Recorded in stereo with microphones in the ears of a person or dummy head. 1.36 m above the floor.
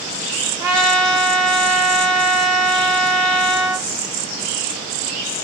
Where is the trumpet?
10° right (ahead or behind), 0.7 m.